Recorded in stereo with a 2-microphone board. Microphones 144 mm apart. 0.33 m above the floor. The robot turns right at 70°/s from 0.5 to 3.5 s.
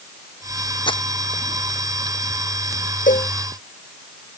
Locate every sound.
0.9 s crumpling: 35° left (ahead or behind); by 1.0 s 45° left (ahead or behind)
3.1 s a cowbell: 70° left (ahead or behind); by 3.3 s 50° left (ahead or behind)